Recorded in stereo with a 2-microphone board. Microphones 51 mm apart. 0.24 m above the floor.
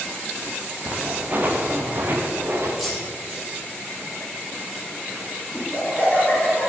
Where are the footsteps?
35° right (ahead or behind), 2.5 m; by 2.7 s 50° right (ahead or behind), 3 m.